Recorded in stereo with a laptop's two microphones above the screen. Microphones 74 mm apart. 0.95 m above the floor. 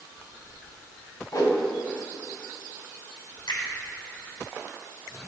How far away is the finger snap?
About 3 m.